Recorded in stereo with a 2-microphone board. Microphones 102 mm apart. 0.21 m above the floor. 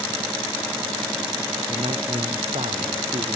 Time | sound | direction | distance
1.7 | a man speaking | 75° right (ahead or behind) | ?